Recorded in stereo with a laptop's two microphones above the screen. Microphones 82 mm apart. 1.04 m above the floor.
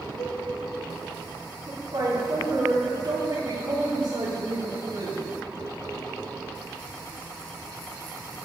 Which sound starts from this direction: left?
A cowbell, at 0.2 s.